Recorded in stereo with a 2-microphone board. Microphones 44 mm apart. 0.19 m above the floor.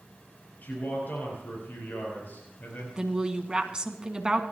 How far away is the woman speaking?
About 1.8 m.